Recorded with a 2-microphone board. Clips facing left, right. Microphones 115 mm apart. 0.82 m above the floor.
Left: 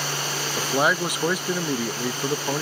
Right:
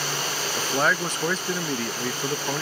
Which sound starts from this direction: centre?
A man speaking, at 0.6 s.